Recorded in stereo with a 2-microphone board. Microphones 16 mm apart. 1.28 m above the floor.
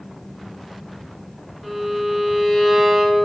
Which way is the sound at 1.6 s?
10° left (ahead or behind).